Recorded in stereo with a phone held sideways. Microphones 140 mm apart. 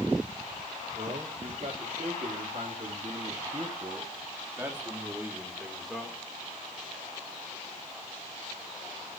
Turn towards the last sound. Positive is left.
turn(degrees=5)  # may be behind; listen again after turning